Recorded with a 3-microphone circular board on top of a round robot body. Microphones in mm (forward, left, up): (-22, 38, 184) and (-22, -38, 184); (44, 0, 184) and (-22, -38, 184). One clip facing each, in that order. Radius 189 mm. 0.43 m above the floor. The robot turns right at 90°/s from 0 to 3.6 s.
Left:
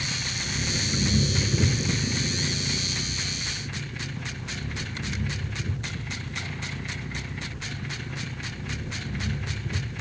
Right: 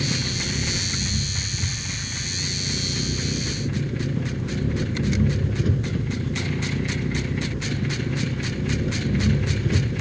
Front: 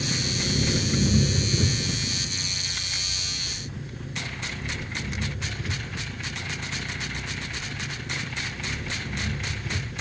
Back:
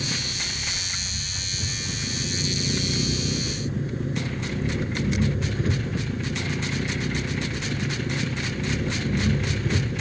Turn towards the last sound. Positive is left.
turn(degrees=-100)